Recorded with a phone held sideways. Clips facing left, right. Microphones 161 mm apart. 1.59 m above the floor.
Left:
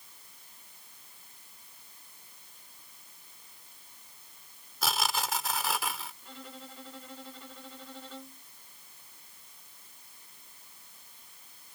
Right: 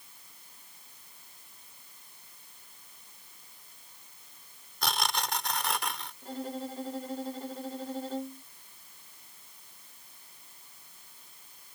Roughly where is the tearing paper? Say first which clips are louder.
Even; centre.